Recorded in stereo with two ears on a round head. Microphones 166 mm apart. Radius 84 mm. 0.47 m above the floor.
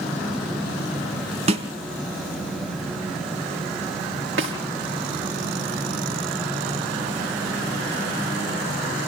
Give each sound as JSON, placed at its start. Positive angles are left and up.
{"t": 1.5, "sound": "a snare drum", "side_deg": -30, "distance_m": 2.5}
{"t": 4.4, "sound": "a snare drum", "side_deg": -75, "distance_m": 5.5}